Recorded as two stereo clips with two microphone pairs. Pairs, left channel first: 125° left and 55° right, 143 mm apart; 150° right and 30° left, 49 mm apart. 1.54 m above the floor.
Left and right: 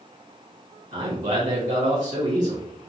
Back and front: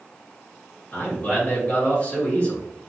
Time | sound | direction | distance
0.9 | a man speaking | 90° right | 1.7 m